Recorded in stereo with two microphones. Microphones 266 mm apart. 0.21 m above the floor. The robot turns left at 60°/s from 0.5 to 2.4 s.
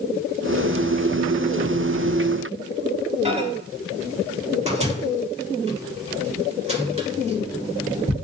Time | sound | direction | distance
3.2 | a microwave | 25° right (ahead or behind) | 0.8 m